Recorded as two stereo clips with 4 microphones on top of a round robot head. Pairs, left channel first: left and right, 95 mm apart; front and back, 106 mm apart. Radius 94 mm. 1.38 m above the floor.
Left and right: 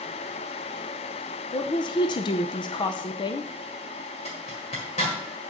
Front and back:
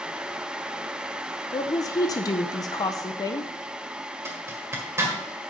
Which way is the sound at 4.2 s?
120° left.